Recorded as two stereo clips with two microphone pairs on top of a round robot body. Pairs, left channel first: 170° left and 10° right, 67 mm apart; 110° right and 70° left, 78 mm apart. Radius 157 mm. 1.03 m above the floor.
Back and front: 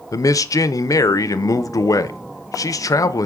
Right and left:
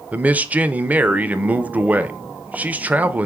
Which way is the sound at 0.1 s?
145° left.